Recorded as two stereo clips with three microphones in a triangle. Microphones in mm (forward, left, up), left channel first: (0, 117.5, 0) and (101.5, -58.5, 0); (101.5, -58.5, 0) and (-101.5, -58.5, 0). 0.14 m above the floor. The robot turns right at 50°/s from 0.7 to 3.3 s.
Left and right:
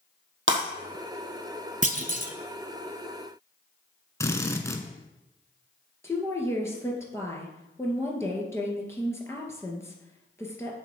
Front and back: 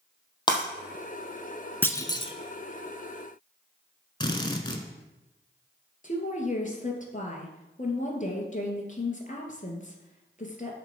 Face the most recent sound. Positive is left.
turn(degrees=45)